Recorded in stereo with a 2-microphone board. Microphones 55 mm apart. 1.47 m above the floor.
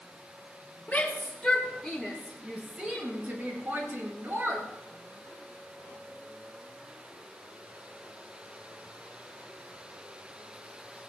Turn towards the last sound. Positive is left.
turn(degrees=-45)  # may be behind; listen again after turning